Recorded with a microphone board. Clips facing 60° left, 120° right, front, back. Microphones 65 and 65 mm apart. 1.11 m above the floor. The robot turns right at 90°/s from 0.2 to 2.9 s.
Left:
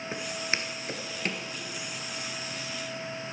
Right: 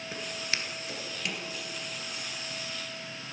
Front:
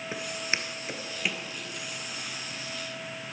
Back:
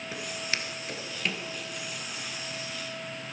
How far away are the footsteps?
About 1.1 m.